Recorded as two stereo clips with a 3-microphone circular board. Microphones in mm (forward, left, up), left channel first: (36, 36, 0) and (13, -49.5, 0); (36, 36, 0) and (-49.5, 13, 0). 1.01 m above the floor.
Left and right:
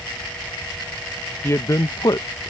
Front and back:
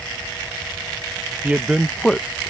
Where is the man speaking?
125° left; by 2.5 s 70° left.